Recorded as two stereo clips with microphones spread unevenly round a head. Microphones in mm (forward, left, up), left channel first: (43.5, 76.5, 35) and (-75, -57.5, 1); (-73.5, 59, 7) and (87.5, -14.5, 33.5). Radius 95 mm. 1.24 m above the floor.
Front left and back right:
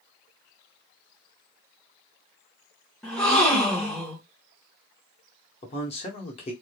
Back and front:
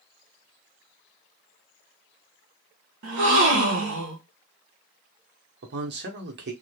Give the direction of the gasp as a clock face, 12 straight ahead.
1 o'clock.